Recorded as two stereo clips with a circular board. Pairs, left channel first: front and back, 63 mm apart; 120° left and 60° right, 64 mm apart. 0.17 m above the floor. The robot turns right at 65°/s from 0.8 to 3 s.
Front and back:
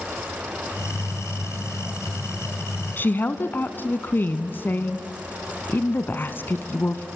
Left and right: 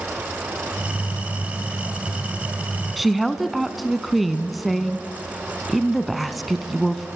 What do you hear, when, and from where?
3.0 s a woman speaking: 25° left, 1.2 m